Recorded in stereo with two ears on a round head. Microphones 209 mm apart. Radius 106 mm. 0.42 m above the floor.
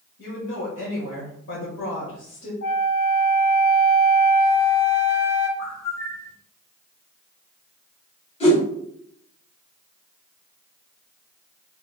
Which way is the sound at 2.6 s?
55° left (ahead or behind).